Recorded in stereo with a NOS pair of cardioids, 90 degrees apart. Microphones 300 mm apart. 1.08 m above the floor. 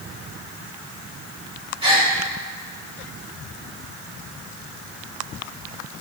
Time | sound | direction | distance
1.8 | a gasp | 20° right | 2.5 m